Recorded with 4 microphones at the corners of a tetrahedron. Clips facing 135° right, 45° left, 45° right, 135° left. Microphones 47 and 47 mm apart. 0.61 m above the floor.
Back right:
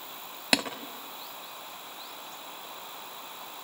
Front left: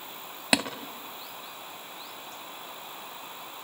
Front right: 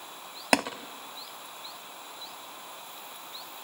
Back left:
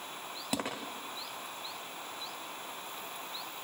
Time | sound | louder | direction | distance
0.5 | tapping | front left 1 dB, front right 11 dB | 40° right | 2.5 m